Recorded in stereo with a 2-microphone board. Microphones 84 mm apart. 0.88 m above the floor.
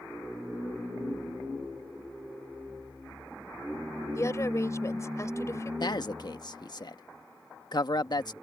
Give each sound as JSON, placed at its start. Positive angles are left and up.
{"t": 4.2, "sound": "a woman speaking", "side_deg": 35}
{"t": 5.8, "sound": "a man speaking", "side_deg": 55}